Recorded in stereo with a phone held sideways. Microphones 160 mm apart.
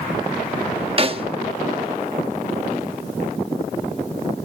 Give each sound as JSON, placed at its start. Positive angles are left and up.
{"t": 1.0, "sound": "a snare drum", "side_deg": -35, "distance_m": 0.9}